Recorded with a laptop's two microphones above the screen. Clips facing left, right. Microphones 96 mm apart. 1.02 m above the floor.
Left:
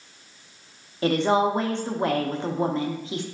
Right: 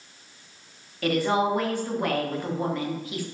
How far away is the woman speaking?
About 0.6 m.